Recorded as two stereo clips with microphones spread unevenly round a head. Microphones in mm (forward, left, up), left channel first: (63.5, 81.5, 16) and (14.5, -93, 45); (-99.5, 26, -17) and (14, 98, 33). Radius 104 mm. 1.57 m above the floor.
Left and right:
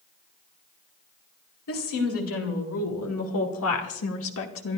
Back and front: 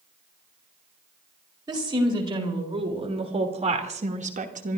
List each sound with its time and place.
1.7 s a woman speaking: 95° left, 4 m; by 4.8 s 55° left, 2.5 m